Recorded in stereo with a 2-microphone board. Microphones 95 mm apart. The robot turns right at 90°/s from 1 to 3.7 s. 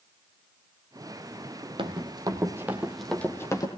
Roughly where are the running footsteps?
Right.